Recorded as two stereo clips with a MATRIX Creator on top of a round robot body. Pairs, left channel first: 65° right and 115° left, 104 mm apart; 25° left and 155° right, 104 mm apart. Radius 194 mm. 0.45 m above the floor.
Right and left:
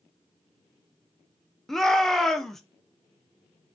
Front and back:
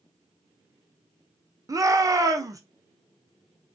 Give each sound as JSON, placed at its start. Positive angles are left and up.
{"t": 1.7, "sound": "a shout", "azimuth_deg": -150, "distance_m": 0.7}